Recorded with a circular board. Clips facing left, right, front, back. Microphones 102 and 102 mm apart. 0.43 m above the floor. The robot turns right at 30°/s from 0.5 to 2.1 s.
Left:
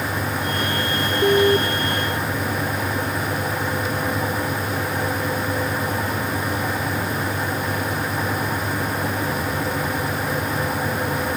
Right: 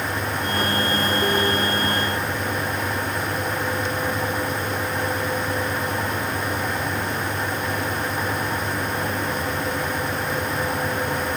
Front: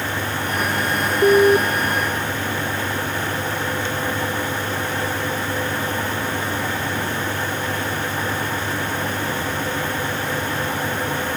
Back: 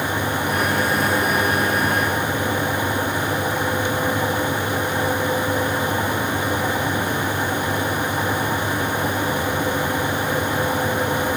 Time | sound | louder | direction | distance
1.2 | an alarm | left 5 dB, front 7 dB | 25° left | ?